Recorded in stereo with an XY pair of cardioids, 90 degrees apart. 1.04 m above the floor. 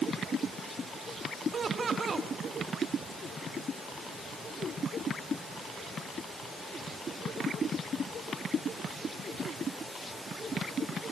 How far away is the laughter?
About 1.9 m.